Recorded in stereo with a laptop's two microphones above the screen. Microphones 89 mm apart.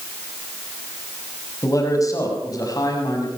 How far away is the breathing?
No breathing in this recording.